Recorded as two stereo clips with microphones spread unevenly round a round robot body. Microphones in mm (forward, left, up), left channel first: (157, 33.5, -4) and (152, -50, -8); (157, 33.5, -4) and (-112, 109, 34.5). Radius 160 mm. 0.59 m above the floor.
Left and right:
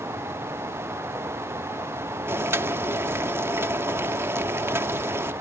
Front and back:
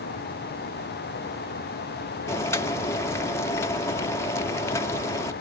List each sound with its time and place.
2.3 s boiling: 75° right